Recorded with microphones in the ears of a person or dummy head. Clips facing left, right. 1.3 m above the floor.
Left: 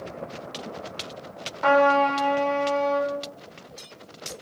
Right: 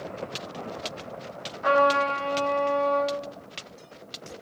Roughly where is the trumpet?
Left.